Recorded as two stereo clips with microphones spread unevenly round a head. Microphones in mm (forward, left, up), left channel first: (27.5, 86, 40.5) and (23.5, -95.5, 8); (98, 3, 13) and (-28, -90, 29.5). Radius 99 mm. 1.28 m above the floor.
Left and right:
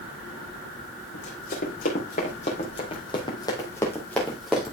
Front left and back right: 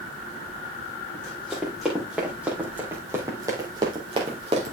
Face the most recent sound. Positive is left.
turn(degrees=180)